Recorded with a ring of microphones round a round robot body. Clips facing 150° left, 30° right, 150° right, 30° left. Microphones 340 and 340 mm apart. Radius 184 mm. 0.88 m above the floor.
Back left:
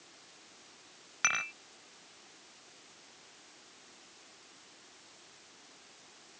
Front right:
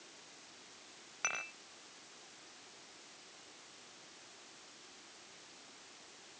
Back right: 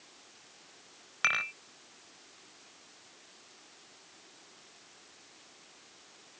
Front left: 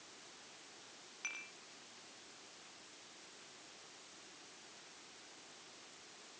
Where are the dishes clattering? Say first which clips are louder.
Back left 3 dB, back right 18 dB; 155° right.